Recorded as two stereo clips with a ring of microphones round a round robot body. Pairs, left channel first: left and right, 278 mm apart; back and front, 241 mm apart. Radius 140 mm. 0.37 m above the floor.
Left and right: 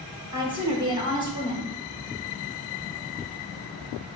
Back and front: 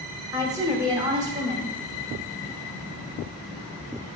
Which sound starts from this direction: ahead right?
A woman speaking, at 0.3 s.